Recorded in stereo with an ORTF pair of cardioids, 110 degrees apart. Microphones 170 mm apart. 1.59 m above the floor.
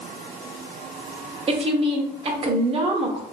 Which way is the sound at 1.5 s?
35° right.